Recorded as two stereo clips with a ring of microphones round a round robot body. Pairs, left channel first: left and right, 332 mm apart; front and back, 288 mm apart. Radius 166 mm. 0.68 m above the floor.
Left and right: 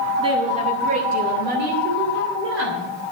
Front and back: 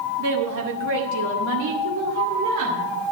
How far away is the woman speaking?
About 2 m.